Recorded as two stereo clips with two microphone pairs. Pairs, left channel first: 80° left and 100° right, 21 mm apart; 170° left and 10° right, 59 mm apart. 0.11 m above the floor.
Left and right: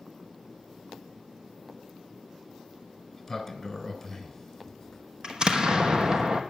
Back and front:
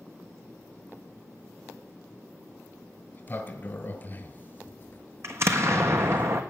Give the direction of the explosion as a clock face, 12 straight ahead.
2 o'clock.